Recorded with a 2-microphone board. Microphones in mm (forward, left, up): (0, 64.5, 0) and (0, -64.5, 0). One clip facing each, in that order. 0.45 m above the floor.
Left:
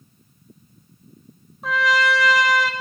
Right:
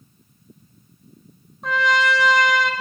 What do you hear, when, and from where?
1.6 s a trumpet: centre (ahead or behind), 1.2 m